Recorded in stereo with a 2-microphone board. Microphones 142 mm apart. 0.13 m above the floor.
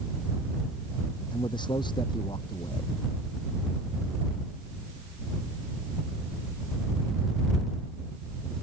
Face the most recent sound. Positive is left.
turn(degrees=35)  # may be behind; listen again after turning